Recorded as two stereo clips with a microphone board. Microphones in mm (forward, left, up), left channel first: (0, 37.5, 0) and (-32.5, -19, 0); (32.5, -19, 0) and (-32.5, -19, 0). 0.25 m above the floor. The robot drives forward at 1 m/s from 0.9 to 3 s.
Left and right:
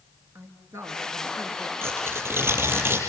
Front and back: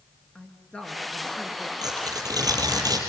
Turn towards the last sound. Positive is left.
turn(degrees=-170)